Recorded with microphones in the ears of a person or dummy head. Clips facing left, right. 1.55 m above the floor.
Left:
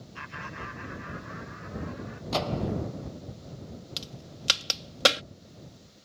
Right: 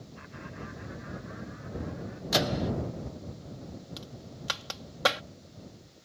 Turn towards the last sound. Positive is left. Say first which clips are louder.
# even
turn(degrees=30)  # may be behind; listen again after turning